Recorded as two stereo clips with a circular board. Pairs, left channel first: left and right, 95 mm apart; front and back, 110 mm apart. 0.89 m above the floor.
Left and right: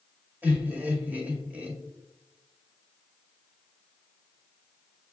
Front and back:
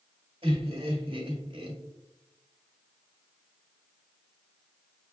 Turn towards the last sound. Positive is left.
turn(degrees=-160)